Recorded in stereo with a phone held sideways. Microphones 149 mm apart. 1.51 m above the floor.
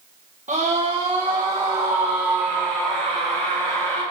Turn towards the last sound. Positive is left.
turn(degrees=10)  # may be behind; listen again after turning